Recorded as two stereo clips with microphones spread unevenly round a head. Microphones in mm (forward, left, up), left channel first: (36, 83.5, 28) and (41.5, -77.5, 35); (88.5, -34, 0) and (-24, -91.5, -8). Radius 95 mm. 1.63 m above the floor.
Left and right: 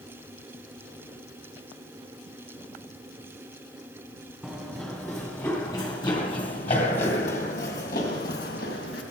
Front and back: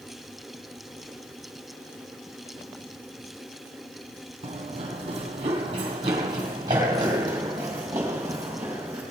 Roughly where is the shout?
I don't hear a shout.